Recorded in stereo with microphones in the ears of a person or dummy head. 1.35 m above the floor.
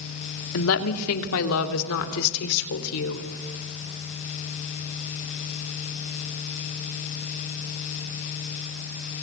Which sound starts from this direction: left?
A woman speaking, at 0.5 s.